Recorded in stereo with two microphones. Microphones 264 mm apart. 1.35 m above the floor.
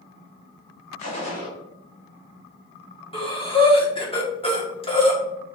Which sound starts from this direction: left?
Breathing, at 3.1 s.